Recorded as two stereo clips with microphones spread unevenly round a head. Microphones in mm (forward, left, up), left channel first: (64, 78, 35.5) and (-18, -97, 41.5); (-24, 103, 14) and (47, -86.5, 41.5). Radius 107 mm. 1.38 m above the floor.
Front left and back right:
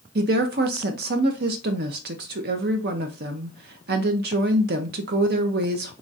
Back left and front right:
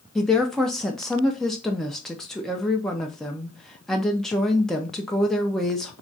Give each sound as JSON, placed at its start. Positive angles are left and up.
{"t": 0.1, "sound": "a woman speaking", "azimuth_deg": -160, "distance_m": 0.6}